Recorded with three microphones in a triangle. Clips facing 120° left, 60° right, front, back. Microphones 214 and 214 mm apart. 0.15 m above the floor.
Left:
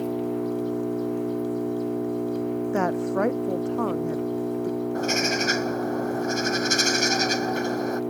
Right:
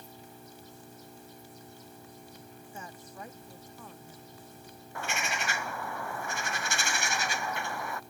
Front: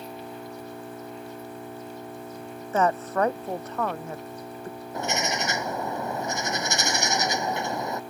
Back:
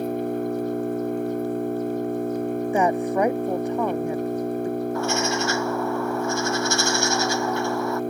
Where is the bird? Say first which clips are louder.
Left 14 dB, back 6 dB; 70° left.